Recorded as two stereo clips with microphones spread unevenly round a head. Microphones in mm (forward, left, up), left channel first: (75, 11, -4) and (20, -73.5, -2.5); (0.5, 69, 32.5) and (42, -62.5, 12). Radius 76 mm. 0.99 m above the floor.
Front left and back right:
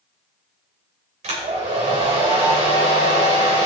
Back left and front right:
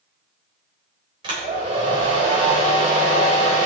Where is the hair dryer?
130° right, 3.5 m.